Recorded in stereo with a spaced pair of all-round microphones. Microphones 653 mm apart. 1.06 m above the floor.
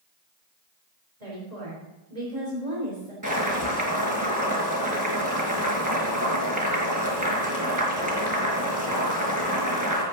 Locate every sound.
1.2 s a woman speaking: 80° right, 3.5 m
3.2 s boiling: 25° right (ahead or behind), 4.5 m